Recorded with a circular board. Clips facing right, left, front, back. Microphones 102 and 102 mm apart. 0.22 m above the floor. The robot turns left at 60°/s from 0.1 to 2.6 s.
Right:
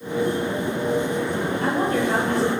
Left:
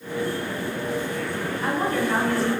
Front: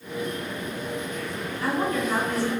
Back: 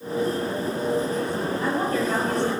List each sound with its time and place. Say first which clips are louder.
1.6 s a woman speaking: right 1 dB, front 1 dB; 110° right, 4 m; by 2.5 s 165° right, 4 m